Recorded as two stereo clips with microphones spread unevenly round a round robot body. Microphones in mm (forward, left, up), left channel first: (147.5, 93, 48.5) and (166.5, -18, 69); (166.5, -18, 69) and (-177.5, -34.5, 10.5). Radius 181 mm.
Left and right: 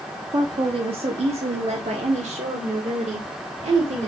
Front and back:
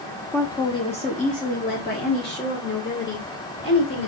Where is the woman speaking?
90° right, 1.1 m; by 4.1 s 55° right, 3 m.